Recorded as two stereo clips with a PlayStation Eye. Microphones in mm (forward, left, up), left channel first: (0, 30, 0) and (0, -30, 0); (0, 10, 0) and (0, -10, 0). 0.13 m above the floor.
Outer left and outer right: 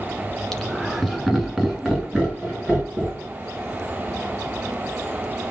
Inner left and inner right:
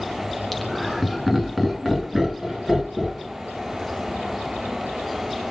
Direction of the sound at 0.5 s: 10° left (ahead or behind).